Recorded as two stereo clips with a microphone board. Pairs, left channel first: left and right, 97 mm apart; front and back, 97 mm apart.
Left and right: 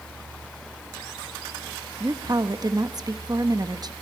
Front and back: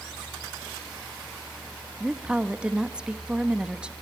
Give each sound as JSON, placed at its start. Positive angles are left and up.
{"t": 2.0, "sound": "a woman speaking", "azimuth_deg": -105, "distance_m": 1.1}